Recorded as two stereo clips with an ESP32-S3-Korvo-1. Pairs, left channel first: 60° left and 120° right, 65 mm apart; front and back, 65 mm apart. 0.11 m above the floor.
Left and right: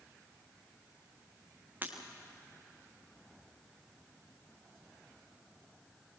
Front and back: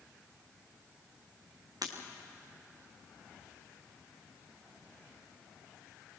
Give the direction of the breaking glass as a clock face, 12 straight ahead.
6 o'clock.